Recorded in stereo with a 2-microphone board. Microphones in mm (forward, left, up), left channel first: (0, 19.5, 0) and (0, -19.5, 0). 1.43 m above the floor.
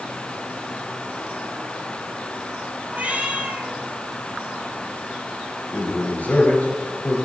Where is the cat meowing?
40° right (ahead or behind), 3 m.